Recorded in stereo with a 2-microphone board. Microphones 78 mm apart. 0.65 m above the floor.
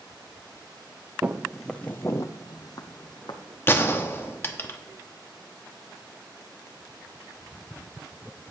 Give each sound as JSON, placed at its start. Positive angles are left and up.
{"t": 1.2, "sound": "footsteps", "side_deg": -25, "distance_m": 0.7}
{"t": 3.7, "sound": "a gunshot", "side_deg": 30, "distance_m": 1.0}